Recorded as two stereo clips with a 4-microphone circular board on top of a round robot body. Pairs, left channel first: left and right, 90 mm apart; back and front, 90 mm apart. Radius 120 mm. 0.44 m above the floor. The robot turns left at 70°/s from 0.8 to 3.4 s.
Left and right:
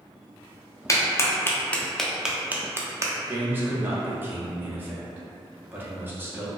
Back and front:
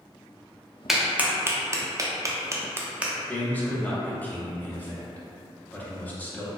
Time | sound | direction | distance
0.9 | a clap | 85° left | 0.5 m
3.3 | a man speaking | 120° right | 0.9 m